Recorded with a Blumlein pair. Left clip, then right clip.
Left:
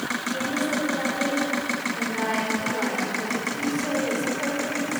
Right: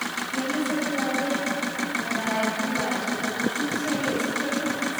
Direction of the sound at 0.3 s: 35° left.